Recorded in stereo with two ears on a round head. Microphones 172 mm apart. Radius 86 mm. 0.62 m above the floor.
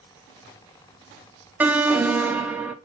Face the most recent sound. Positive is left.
turn(degrees=-10)  # may be behind; listen again after turning